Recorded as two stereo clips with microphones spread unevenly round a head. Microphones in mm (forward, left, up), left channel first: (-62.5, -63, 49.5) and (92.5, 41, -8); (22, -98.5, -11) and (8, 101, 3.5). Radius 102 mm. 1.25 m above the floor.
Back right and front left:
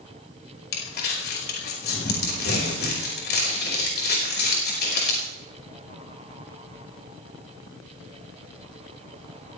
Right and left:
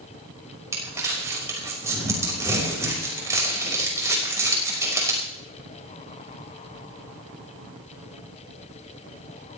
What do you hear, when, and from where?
0.7 s crumpling: 170° left, 5.5 m